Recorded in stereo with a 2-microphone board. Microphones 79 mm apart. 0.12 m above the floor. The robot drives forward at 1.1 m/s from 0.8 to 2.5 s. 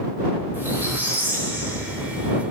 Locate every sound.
0.5 s a squeak: 25° right (ahead or behind), 8 m; by 2.4 s 30° right (ahead or behind), 6.5 m